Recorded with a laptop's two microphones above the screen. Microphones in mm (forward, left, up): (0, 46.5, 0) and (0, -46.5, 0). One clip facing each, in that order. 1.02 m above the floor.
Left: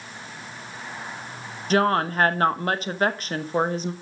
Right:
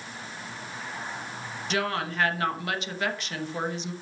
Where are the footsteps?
I don't hear footsteps.